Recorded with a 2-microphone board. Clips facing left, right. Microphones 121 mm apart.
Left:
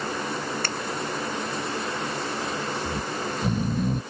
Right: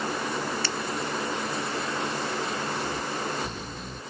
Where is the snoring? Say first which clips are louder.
Left 1 dB; 50° left (ahead or behind).